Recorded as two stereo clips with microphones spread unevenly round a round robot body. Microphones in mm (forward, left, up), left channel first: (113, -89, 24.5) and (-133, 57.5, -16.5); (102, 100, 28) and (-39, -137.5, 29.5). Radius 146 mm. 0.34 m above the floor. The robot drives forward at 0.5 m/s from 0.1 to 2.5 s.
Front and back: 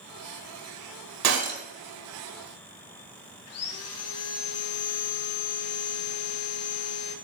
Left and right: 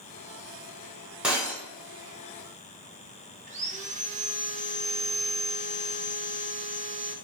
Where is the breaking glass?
150° left, 1.0 m; by 1.6 s 155° left, 1.2 m.